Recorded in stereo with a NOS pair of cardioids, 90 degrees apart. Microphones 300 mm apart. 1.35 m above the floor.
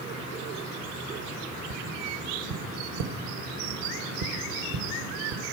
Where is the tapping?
55° right, 1.1 m.